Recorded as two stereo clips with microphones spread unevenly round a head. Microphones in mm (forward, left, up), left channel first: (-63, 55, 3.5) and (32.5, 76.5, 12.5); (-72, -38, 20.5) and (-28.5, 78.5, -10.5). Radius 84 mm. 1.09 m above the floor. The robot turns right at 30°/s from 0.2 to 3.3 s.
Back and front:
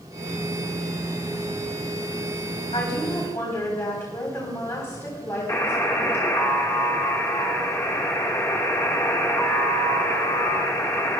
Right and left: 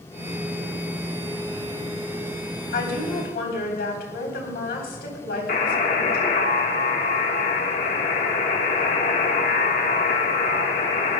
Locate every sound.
2.7 s a woman speaking: 110° right, 3.5 m; by 6.3 s 95° right, 3.5 m
5.5 s a buzzer: 90° right, 1.4 m